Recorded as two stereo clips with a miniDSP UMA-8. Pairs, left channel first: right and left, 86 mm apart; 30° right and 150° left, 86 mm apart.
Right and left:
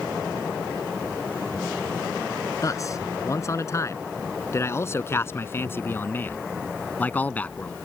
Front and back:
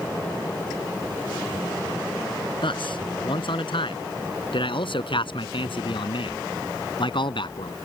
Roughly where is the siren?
No siren in this recording.